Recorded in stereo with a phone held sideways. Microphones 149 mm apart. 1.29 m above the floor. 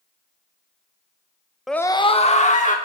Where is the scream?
Centre (ahead or behind), 0.7 m; by 2.8 s 55° left (ahead or behind), 2.0 m.